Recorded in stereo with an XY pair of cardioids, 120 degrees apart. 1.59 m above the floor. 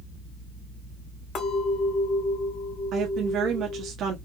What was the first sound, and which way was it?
A clink, 70° left.